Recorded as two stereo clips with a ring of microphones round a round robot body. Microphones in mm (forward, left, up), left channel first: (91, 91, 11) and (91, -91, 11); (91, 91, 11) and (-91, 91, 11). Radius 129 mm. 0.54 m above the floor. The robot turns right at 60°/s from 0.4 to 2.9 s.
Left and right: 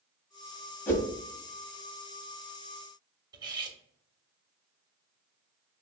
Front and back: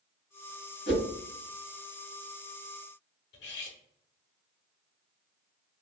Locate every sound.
0.9 s a whoosh: 10° left, 1.8 m; by 1.1 s 25° left, 1.8 m
3.3 s cutlery clinking: 25° right, 1.1 m